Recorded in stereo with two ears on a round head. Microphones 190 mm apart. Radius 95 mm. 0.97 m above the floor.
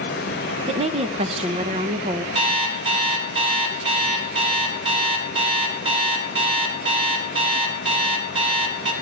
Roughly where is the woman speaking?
Right.